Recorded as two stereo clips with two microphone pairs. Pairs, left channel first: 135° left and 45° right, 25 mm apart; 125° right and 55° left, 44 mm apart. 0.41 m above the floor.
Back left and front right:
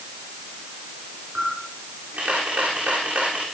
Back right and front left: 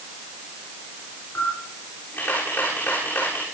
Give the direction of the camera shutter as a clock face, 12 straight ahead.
3 o'clock.